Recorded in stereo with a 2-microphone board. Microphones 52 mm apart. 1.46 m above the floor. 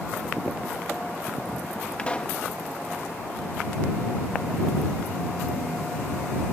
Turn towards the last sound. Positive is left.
turn(degrees=25)  # may be behind; listen again after turning